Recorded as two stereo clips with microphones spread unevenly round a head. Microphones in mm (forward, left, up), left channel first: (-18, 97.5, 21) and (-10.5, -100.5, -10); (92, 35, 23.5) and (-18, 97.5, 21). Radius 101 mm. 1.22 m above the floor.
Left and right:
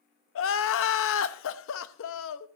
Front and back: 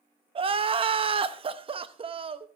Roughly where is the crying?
Left.